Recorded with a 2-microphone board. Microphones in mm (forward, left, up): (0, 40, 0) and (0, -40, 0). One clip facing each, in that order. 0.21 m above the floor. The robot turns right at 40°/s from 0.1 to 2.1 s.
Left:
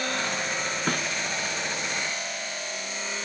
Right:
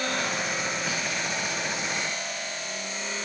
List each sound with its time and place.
0.9 s a snare drum: 60° left (ahead or behind), 1.4 m